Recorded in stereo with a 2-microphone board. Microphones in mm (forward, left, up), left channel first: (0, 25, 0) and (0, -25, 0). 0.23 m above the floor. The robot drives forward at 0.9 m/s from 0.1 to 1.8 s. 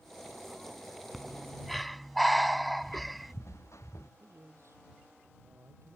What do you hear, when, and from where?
1.1 s breathing: centre (ahead or behind)
2.8 s footsteps: 60° left (ahead or behind); by 4.1 s 70° left (ahead or behind)
4.2 s a man speaking: 60° right (ahead or behind)